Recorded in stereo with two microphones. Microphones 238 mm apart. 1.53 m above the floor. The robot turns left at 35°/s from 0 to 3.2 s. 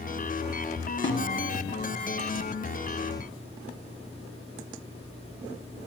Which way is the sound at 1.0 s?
50° left (ahead or behind).